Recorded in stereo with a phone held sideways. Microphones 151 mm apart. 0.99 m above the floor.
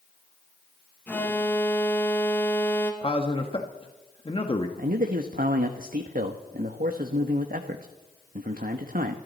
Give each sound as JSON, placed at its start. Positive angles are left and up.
{"t": 1.1, "sound": "an alarm", "side_deg": 15, "distance_m": 2.0}
{"t": 3.0, "sound": "a man speaking", "side_deg": 40, "distance_m": 1.2}
{"t": 4.8, "sound": "a man speaking", "side_deg": -70, "distance_m": 1.1}